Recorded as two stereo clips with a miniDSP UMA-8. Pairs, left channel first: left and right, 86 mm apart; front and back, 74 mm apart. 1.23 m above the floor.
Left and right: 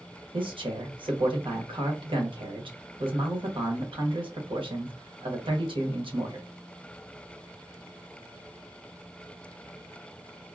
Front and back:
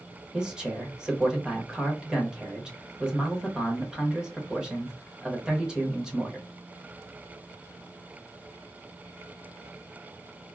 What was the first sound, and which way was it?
A man speaking, 100° right.